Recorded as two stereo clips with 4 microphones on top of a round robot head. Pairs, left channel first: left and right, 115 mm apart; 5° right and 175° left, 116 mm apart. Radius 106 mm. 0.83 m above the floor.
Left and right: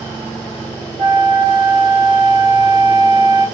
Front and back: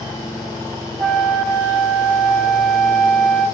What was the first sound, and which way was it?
A flute, 100° right.